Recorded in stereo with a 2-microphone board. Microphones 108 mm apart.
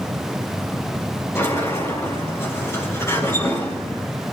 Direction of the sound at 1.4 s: 25° left (ahead or behind).